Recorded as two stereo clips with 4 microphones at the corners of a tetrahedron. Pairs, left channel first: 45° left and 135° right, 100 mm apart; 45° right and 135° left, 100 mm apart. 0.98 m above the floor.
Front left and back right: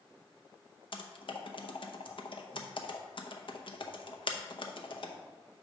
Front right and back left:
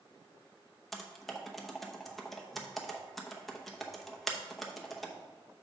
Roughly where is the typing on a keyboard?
Ahead left.